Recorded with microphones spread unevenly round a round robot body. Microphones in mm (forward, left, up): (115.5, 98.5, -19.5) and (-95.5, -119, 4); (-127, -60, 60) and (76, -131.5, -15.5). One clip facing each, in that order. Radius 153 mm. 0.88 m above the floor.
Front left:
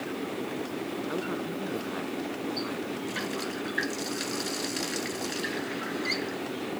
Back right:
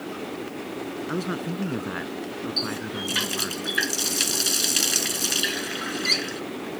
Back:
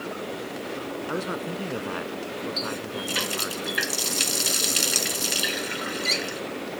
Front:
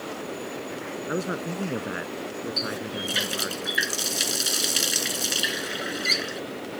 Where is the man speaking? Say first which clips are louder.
Back right 5 dB, front 3 dB; 90° right.